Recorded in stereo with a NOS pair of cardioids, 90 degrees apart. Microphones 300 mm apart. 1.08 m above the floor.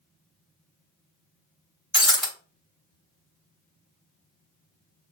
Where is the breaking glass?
Straight ahead, 2.5 m.